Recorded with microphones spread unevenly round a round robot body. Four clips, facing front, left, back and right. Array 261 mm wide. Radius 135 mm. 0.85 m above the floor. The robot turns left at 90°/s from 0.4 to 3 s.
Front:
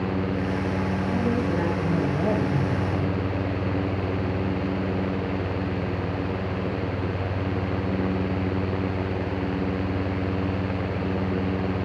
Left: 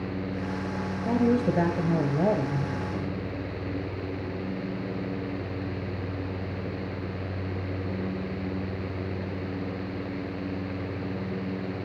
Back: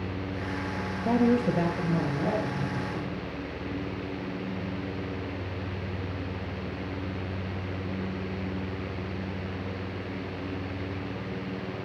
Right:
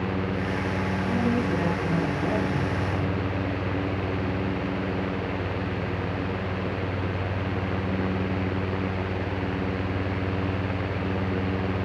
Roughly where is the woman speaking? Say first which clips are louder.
Left 3 dB, back 4 dB; behind.